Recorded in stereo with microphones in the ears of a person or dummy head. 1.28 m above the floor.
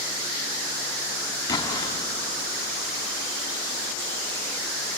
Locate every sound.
1.5 s an explosion: 25° left (ahead or behind), 3.5 m